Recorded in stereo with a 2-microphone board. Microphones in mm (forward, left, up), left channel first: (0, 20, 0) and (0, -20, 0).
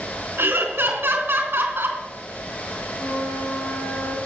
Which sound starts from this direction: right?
Laughter, at 0.4 s.